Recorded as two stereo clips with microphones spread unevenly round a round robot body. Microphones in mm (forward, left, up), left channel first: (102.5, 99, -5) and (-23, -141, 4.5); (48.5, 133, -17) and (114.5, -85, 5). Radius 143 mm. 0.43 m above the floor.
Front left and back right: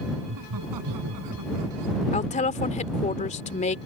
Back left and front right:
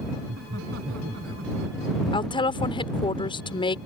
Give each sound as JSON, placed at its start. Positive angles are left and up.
{"t": 0.2, "sound": "laughter", "azimuth_deg": -120}
{"t": 2.1, "sound": "a woman speaking", "azimuth_deg": 80}